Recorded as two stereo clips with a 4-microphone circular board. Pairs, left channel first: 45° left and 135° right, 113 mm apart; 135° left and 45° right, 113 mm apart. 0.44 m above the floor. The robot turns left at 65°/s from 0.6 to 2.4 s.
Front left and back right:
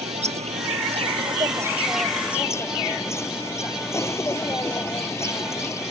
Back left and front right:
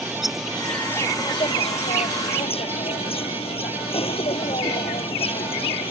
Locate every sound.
0.0 s an insect: 135° right; by 5.9 s 110° left